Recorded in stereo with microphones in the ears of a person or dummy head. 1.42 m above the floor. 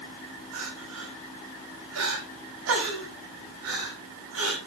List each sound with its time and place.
0.5 s crying: 60° right (ahead or behind), 4.5 m